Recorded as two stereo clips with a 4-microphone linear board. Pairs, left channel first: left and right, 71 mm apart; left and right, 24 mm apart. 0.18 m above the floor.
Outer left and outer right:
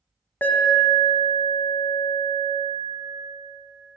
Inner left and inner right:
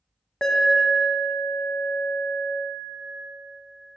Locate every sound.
0.4 s an alarm: 25° left (ahead or behind), 0.7 m